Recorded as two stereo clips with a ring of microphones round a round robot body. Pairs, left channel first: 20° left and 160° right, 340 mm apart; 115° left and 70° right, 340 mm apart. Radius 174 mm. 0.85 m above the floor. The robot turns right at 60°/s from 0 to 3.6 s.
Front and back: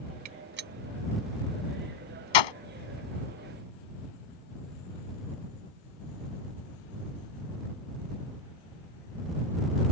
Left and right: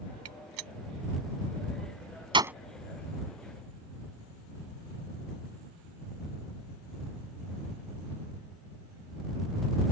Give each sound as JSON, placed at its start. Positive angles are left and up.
{"t": 0.2, "sound": "a gunshot", "azimuth_deg": -115}